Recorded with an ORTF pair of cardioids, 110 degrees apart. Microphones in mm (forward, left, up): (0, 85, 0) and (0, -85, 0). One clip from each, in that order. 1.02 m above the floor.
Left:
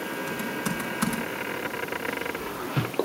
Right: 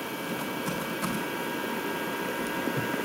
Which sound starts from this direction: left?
Typing on a keyboard, at 0.3 s.